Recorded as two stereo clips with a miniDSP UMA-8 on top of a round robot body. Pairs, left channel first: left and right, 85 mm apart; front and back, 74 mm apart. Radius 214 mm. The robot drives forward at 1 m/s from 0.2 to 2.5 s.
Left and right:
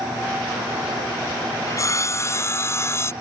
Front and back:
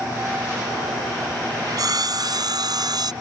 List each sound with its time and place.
1.7 s sawing: 140° left; by 3.1 s 150° left